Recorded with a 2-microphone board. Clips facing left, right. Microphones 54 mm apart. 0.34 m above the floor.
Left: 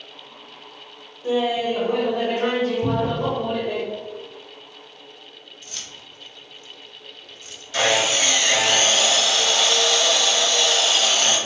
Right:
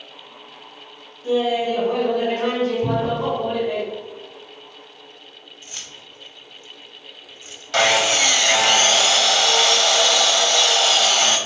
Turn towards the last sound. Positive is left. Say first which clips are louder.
# right 3 dB
turn(degrees=-65)  # may be behind; listen again after turning